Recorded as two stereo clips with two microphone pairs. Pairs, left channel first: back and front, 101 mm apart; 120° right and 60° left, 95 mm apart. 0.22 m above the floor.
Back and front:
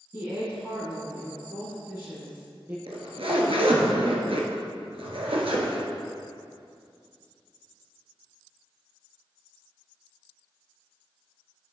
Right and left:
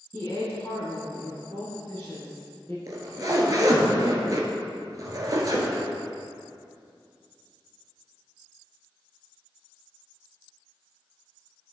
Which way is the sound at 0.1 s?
50° right.